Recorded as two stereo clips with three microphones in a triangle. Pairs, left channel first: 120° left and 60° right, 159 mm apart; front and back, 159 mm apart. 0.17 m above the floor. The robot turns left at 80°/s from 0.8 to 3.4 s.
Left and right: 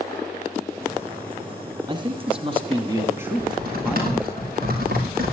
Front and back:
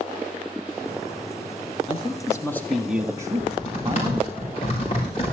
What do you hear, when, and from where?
1.9 s a man speaking: 15° right, 1.3 m; by 4.3 s 135° right, 1.3 m
3.3 s typing on a keyboard: 40° right, 7 m; by 5.3 s 50° right, 7 m